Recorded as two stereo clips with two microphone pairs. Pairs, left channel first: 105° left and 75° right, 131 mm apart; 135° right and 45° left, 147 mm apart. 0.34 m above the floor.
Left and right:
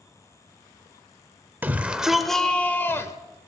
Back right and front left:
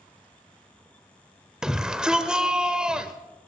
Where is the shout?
30° right, 1.1 m; by 3.1 s 115° left, 1.2 m.